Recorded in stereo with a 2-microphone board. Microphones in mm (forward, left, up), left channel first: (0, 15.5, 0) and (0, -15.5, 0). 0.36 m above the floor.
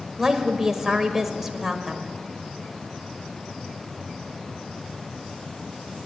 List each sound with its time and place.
0.2 s a woman speaking: 10° right (ahead or behind), 1.5 m